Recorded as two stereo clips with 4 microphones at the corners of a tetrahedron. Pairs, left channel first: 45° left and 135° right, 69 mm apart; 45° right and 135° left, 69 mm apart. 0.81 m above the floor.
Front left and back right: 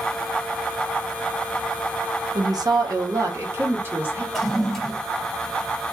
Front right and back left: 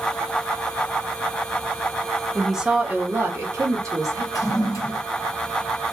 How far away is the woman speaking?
About 0.7 m.